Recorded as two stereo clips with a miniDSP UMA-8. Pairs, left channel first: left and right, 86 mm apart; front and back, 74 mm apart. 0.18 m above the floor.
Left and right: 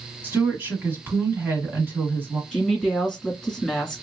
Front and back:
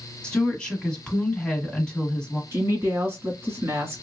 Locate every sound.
0.2 s a woman speaking: 65° right, 1.2 m
2.5 s a woman speaking: 170° right, 1.5 m